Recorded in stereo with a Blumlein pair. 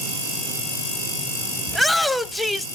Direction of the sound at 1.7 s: 5° left.